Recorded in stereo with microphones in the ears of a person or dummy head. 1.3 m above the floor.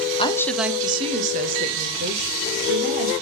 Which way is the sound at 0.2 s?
25° left (ahead or behind).